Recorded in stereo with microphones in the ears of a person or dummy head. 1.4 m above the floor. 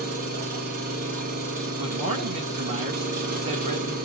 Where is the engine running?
50° right (ahead or behind), 1.0 m.